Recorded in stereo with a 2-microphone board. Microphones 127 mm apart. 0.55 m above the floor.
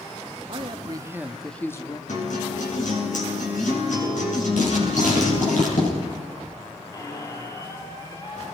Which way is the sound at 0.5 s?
45° right (ahead or behind).